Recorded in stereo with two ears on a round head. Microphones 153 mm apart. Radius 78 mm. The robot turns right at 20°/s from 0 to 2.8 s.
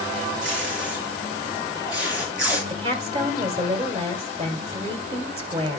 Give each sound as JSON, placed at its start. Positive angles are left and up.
{"t": 0.4, "sound": "tape being pulled", "side_deg": -80, "distance_m": 5.0}
{"t": 2.7, "sound": "a woman speaking", "side_deg": -35, "distance_m": 1.7}